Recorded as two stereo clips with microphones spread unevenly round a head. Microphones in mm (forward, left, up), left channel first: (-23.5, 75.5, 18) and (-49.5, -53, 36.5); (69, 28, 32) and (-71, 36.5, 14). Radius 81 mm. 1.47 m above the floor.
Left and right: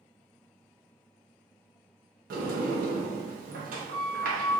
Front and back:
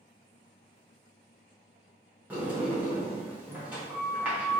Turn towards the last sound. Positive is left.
turn(degrees=-105)